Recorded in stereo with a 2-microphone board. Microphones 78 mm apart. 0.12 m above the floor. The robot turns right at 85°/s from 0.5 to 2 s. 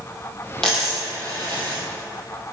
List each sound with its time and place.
0.6 s a dropped coin: 5° left (ahead or behind), 1.9 m; by 1.8 s 70° right (ahead or behind), 1.9 m